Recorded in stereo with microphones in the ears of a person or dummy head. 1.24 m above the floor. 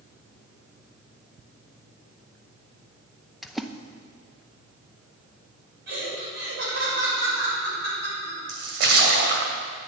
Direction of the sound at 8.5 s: 60° right (ahead or behind).